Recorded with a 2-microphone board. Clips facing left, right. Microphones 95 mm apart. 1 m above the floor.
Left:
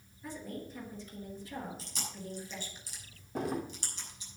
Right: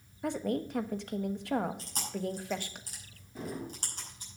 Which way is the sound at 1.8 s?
45° right (ahead or behind).